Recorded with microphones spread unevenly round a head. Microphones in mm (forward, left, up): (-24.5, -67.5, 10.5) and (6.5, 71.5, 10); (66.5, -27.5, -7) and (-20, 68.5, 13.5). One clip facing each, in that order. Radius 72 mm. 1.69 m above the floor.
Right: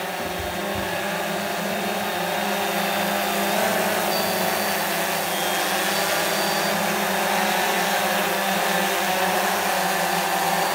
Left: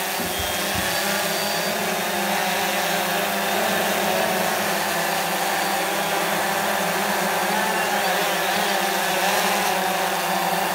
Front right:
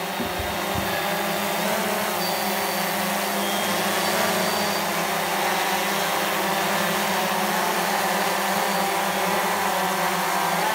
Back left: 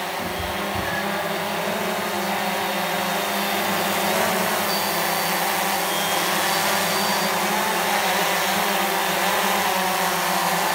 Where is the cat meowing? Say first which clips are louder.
Left 1 dB, even; 5° left, 4 m; by 1.3 s 5° right, 3.5 m.